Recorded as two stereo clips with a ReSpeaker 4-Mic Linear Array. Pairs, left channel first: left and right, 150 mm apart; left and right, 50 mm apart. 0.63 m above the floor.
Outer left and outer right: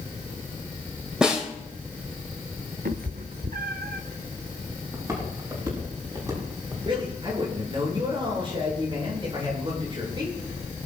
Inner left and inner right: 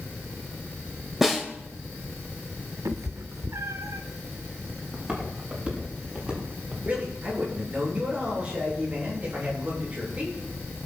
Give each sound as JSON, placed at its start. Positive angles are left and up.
{"t": 1.2, "sound": "a snare drum", "side_deg": -5, "distance_m": 3.0}
{"t": 2.9, "sound": "a cat meowing", "side_deg": -85, "distance_m": 0.8}
{"t": 4.9, "sound": "footsteps", "side_deg": -20, "distance_m": 9.0}
{"t": 6.8, "sound": "a man speaking", "side_deg": -35, "distance_m": 8.5}